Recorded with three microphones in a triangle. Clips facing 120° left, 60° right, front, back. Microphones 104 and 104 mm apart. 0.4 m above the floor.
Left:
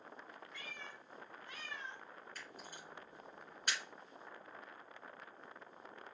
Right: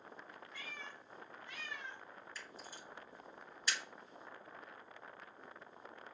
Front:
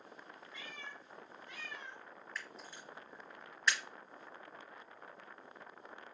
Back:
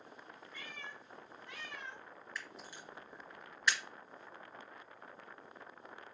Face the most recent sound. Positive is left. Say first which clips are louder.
# even, even
turn(degrees=95)